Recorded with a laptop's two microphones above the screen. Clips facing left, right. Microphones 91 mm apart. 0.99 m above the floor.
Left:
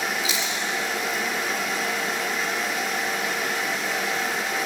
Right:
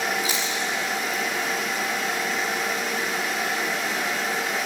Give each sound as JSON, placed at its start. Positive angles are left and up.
{"t": 0.2, "sound": "chewing", "side_deg": -40, "distance_m": 6.0}